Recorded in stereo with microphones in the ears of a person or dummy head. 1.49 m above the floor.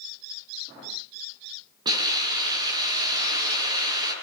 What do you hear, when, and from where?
1.9 s a hiss: 20° right (ahead or behind), 9.5 m